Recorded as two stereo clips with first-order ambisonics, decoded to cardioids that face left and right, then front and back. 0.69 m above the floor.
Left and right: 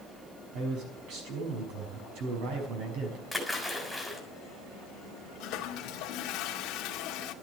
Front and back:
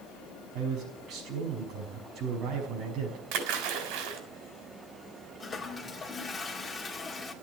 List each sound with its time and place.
0.5 s a man speaking: 125° right, 5.5 m
3.3 s a splash: straight behind, 3.5 m
5.4 s a toilet flushing: 70° left, 1.5 m